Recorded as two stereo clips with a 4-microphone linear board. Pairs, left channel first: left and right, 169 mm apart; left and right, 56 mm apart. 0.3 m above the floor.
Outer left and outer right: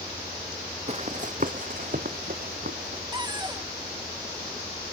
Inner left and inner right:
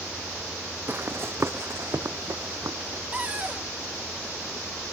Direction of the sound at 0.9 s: 40° right (ahead or behind).